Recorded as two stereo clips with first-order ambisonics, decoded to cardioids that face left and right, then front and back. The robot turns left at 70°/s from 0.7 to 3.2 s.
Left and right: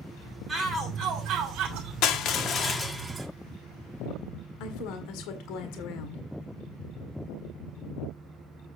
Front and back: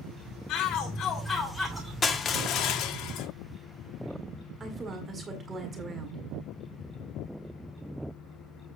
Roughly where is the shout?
Ahead right.